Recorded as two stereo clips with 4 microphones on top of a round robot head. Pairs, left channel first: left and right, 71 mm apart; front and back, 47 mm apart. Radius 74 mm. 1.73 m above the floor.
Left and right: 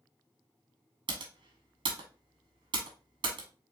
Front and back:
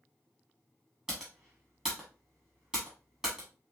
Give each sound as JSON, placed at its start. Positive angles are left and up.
{"t": 1.1, "sound": "typing on a keyboard", "azimuth_deg": -100, "distance_m": 1.3}